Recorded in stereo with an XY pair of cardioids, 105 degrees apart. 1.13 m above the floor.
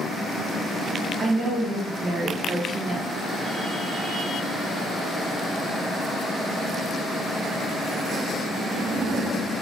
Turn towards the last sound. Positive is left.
turn(degrees=-30)